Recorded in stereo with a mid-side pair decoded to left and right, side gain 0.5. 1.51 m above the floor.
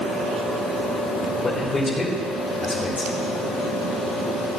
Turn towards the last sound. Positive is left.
turn(degrees=35)